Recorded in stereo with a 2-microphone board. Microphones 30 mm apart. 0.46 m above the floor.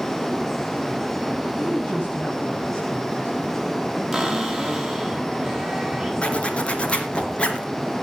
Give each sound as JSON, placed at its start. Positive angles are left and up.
{"t": 1.6, "sound": "a woman speaking", "side_deg": 55, "distance_m": 3.5}
{"t": 4.1, "sound": "a cupboard door", "side_deg": -5, "distance_m": 5.0}
{"t": 6.2, "sound": "a zipper", "side_deg": 40, "distance_m": 2.5}